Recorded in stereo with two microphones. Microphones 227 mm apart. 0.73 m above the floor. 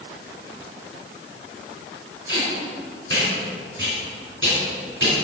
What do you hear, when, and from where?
2.3 s tape being pulled: 60° right (ahead or behind), 3 m